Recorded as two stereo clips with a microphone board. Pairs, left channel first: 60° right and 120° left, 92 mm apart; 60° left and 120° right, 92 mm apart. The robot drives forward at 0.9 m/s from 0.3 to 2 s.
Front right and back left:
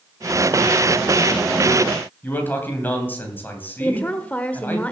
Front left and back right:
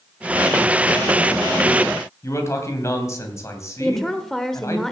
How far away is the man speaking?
About 2.5 m.